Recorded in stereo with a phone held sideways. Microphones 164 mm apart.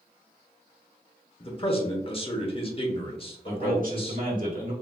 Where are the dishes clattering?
No dishes clattering in this recording.